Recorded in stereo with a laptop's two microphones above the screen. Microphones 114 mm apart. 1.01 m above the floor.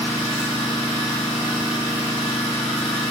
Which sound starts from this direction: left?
An engine running, at 0.0 s.